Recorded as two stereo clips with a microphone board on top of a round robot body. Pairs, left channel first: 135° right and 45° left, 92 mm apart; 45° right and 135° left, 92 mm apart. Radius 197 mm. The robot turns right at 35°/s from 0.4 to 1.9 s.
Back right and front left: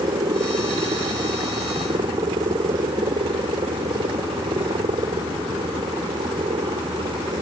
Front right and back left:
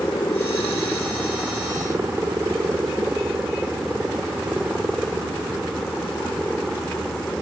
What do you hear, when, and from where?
0.0 s a helicopter: 20° left; by 7.4 s 40° left